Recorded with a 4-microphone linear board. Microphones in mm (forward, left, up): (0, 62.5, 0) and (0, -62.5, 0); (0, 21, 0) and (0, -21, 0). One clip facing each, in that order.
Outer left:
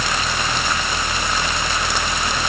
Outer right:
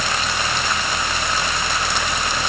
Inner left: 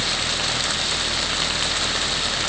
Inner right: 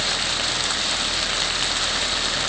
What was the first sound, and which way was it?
Only background noise.